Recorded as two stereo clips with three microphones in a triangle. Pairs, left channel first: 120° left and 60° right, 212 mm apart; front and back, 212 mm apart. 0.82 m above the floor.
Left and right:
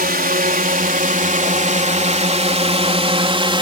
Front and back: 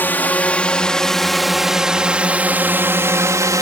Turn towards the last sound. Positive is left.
turn(degrees=-115)